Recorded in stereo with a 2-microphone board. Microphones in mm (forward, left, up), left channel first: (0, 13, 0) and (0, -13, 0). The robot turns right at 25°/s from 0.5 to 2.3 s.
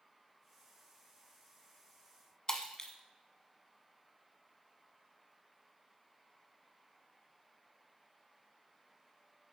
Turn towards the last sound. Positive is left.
turn(degrees=25)  # may be behind; listen again after turning